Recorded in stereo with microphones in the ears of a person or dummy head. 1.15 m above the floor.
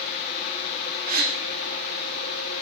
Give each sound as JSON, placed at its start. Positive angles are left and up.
{"t": 1.1, "sound": "a gasp", "side_deg": -45, "distance_m": 1.3}